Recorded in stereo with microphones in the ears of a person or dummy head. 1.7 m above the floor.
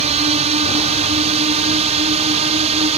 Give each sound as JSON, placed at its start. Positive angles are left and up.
{"t": 0.0, "sound": "a drone", "side_deg": -40}